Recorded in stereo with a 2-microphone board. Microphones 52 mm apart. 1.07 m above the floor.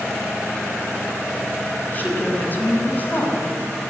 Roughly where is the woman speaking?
Left.